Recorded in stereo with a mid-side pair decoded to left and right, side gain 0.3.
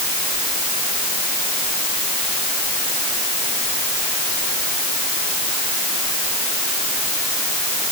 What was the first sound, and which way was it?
Only background noise.